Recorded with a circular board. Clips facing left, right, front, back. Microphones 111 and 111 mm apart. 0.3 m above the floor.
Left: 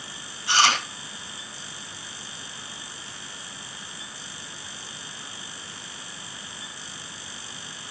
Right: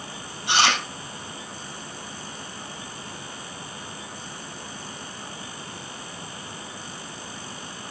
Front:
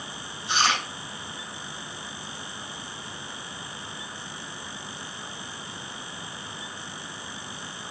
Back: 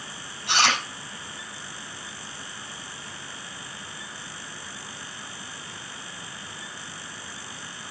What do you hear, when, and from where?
0.5 s chewing: 160° right, 5 m